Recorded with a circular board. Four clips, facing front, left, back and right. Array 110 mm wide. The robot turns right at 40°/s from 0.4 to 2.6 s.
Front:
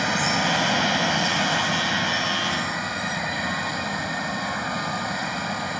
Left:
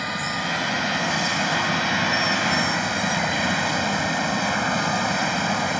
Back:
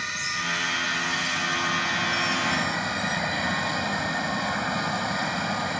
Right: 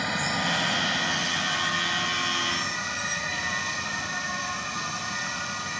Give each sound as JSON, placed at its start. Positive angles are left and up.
{"t": 0.0, "sound": "running water", "azimuth_deg": 5}